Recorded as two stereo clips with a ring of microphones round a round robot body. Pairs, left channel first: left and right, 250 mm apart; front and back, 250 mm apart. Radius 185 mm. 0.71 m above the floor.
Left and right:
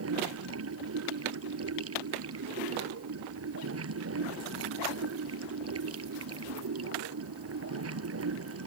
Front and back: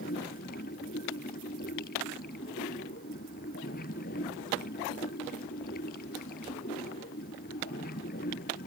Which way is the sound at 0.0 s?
65° right.